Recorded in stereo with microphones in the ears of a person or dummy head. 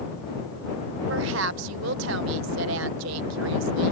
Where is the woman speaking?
70° right (ahead or behind).